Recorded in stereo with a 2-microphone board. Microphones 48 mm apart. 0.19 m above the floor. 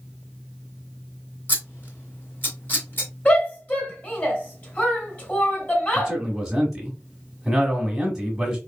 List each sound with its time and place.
1.5 s scissors: 45° left (ahead or behind), 2 m
3.2 s a shout: 35° left (ahead or behind), 2 m
6.0 s a man speaking: 10° right (ahead or behind), 1.3 m